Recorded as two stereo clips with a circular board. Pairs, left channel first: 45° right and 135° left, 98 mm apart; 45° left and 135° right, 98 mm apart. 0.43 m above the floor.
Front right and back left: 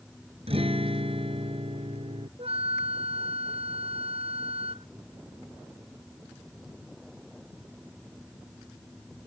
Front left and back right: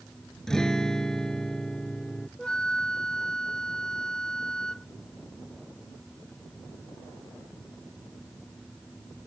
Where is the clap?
I don't hear a clap.